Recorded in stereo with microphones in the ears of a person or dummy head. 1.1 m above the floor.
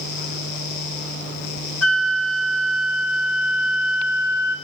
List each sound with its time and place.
1.8 s a flute: 80° left, 2.5 m